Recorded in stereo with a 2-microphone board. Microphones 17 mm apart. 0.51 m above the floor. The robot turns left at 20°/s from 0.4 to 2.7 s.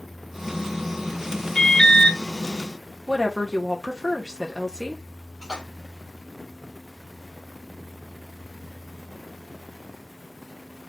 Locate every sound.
1.6 s an alarm: 50° left (ahead or behind), 0.7 m; by 2.2 s 40° left (ahead or behind), 0.7 m
3.1 s a woman speaking: 35° left (ahead or behind), 0.9 m
5.4 s a splash: 55° right (ahead or behind), 1.8 m